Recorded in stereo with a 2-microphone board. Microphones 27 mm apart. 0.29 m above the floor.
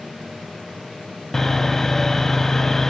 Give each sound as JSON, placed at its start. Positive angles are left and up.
{"t": 1.3, "sound": "sawing", "side_deg": 15, "distance_m": 0.5}